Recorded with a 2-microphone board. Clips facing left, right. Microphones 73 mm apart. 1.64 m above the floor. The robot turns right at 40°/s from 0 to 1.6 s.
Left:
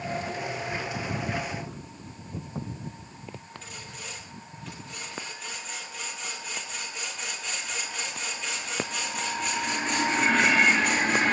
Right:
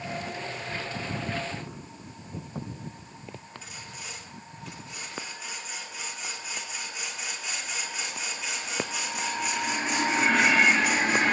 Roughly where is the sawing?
Centre.